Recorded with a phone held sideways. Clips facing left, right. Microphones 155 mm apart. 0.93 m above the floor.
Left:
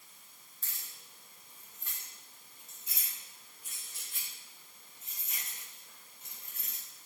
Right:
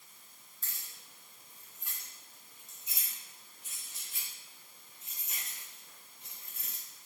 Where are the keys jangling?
Centre (ahead or behind), 3 m; by 6.8 s 35° right (ahead or behind), 7.5 m.